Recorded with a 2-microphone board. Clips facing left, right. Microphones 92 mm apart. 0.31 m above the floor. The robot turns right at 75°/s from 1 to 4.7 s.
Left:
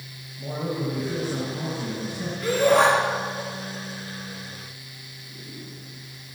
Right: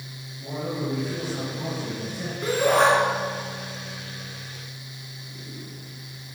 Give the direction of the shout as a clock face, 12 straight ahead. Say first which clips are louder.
Left 1 dB; 1 o'clock.